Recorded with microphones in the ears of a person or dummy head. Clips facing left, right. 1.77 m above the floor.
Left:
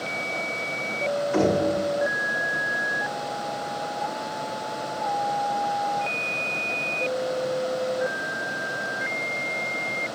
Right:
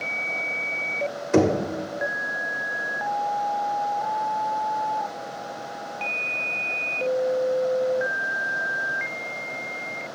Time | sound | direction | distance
1.3 | knocking | 50° right (ahead or behind) | 1.3 m